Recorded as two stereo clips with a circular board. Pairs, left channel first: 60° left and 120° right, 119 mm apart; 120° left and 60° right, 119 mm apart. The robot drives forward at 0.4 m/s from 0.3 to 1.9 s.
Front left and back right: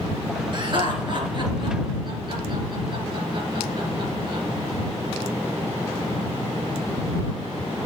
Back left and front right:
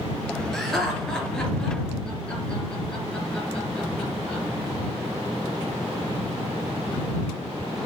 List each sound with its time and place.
0.5 s laughter: 155° right, 3 m; by 4.4 s 160° right, 3 m